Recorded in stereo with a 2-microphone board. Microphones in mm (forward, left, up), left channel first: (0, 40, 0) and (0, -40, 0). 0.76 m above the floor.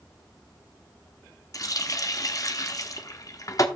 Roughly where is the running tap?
Left.